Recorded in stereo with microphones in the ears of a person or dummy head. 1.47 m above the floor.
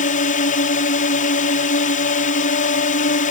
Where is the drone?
40° left (ahead or behind).